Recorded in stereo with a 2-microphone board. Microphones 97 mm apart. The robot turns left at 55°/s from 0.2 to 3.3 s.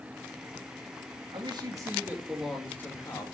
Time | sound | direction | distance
1.3 | a man speaking | 120° right | 2.5 m